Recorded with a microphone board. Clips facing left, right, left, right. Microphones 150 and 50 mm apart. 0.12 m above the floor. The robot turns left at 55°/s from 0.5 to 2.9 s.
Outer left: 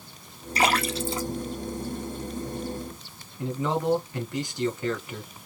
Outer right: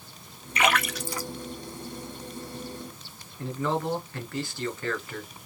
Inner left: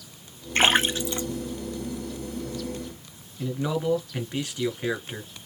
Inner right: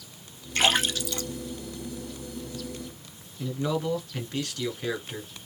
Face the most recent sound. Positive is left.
turn(degrees=20)  # may be behind; listen again after turning